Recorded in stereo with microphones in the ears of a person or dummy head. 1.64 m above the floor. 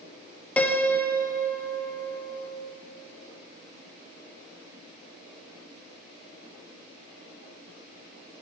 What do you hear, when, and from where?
0.6 s a piano: 10° left (ahead or behind), 1.0 m